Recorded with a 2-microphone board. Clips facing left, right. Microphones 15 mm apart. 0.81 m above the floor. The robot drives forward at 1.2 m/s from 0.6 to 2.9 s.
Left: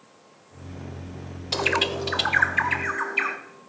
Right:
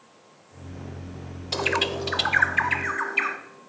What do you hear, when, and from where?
1.5 s a bird: 10° left (ahead or behind), 0.5 m; by 3.4 s 5° left (ahead or behind), 1.5 m